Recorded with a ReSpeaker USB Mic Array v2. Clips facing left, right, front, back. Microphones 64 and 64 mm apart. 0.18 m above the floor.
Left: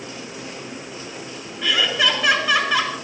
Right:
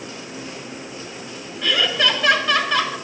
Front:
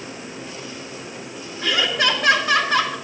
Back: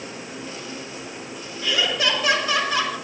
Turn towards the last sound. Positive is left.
turn(degrees=10)